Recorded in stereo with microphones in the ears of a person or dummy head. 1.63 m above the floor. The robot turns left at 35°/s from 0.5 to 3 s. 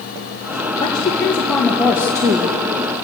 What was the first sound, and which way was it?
A woman speaking, 25° left.